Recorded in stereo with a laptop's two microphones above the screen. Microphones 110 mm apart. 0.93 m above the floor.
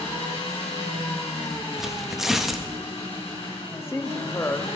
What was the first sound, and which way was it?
An engine running, 70° left (ahead or behind).